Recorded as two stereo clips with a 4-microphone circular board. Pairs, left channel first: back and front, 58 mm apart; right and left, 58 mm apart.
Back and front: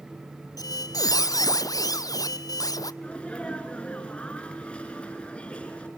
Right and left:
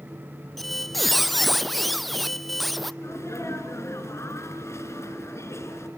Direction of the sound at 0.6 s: Straight behind.